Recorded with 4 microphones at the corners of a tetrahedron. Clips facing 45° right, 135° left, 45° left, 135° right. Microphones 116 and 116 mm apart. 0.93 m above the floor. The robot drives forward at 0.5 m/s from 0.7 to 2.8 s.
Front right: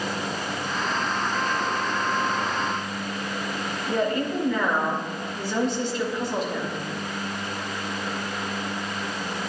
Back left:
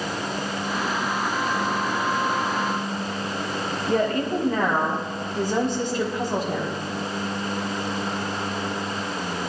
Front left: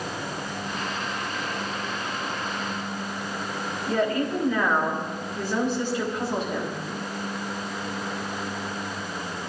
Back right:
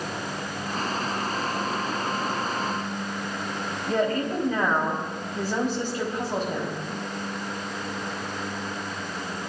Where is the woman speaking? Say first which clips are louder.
Back left 2 dB, even; 175° left, 5.5 m.